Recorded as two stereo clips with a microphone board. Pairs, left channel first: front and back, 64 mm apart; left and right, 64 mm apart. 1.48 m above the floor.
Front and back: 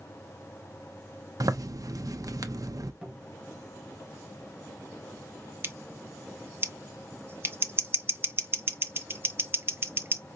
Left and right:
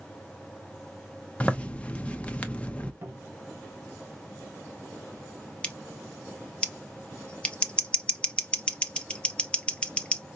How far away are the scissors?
About 0.6 m.